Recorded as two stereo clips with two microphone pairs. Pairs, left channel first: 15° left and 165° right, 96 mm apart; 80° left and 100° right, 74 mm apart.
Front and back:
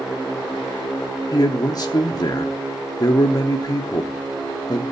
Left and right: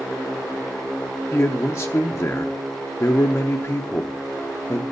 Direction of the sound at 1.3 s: 40° left.